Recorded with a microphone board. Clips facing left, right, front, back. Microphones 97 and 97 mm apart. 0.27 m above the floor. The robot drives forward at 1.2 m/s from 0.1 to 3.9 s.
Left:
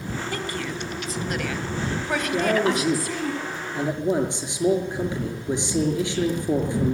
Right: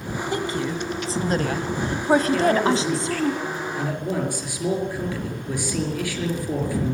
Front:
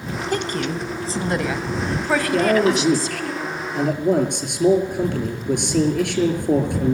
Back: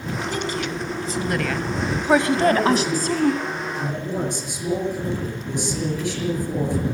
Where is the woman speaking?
25° right, 2 m; by 3.3 s 155° right, 2 m.